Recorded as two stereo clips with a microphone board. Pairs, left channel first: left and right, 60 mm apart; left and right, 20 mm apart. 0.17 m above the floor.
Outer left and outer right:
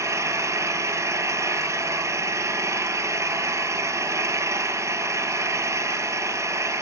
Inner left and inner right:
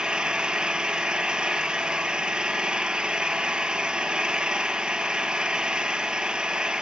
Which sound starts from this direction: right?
An engine running, at 0.0 s.